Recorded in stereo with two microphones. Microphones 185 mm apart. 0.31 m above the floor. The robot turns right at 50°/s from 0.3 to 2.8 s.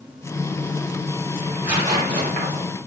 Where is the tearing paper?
Straight behind, 2 m; by 2.6 s 120° right, 2 m.